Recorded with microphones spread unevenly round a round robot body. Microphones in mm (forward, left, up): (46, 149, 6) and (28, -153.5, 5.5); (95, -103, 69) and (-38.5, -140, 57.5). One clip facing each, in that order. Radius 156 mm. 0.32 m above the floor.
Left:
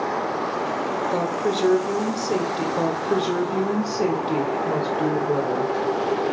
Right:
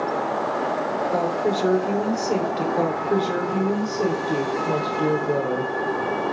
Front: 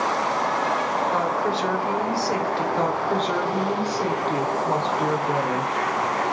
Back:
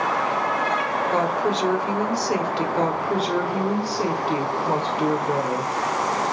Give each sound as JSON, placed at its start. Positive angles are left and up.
{"t": 1.1, "sound": "a woman speaking", "azimuth_deg": 150, "distance_m": 1.3}
{"t": 2.8, "sound": "a woman speaking", "azimuth_deg": 145, "distance_m": 1.3}